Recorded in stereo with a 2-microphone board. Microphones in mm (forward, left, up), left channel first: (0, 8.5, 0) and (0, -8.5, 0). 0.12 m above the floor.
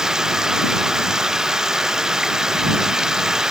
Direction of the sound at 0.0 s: 30° right (ahead or behind).